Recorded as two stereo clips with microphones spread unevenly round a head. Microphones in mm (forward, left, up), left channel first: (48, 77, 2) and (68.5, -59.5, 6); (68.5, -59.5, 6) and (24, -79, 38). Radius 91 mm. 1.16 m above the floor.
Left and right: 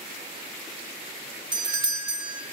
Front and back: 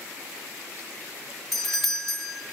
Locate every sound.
1.5 s a doorbell: 35° right, 0.8 m